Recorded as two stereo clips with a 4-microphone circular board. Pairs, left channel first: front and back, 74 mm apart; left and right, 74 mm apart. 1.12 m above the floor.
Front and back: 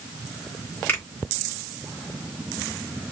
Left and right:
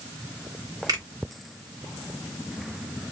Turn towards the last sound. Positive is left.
turn(degrees=-65)